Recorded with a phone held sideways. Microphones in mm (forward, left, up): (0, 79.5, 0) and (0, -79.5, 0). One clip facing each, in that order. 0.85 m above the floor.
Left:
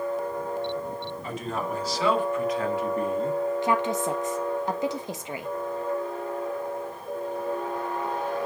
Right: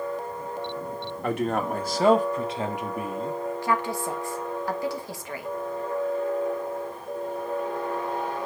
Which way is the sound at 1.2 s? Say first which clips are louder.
Right 7 dB; 70° right (ahead or behind).